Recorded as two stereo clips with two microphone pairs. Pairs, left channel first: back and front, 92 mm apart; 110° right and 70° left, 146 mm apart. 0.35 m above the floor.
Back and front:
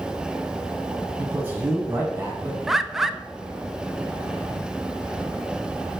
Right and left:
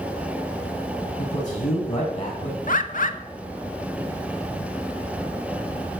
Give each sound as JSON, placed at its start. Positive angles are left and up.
{"t": 1.2, "sound": "a man speaking", "azimuth_deg": -75, "distance_m": 7.5}
{"t": 2.7, "sound": "a bird", "azimuth_deg": -90, "distance_m": 0.8}